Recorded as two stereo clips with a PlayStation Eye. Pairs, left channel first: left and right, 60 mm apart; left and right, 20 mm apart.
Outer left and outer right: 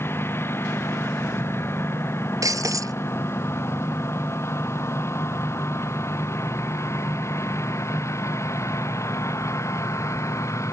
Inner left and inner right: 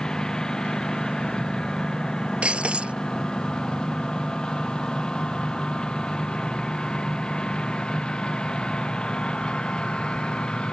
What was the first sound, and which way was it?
A lawn mower, 40° left (ahead or behind).